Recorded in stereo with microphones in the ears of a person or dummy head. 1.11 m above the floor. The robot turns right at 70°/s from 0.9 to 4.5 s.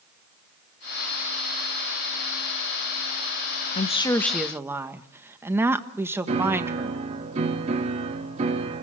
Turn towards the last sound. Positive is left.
turn(degrees=-30)  # may be behind; listen again after turning